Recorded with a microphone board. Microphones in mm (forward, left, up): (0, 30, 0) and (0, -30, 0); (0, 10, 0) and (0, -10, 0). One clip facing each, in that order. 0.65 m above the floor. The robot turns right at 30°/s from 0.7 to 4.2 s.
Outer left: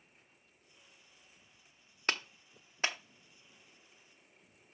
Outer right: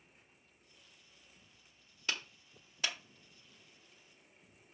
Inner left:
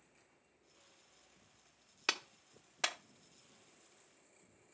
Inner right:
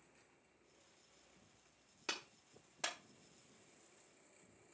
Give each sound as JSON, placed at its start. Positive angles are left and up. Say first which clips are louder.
{"t": 2.1, "sound": "a clap", "louder": "outer left 4 dB, inner left 8 dB", "side_deg": 50, "distance_m": 0.7}